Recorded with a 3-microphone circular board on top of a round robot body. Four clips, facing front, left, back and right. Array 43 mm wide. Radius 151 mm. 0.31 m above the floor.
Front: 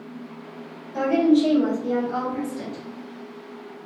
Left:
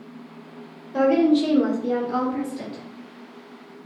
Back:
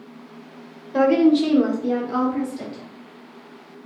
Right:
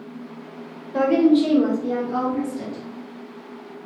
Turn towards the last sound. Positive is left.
turn(degrees=115)